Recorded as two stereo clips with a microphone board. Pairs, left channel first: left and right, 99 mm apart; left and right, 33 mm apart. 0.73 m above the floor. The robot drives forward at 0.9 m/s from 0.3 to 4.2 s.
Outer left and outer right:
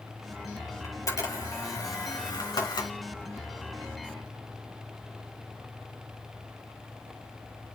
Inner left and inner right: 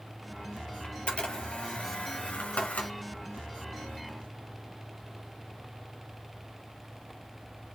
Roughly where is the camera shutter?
Left.